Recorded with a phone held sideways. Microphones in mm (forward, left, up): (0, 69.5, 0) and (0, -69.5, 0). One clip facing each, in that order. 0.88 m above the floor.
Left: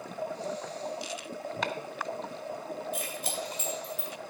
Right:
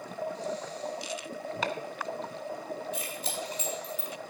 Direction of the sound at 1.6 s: Centre (ahead or behind).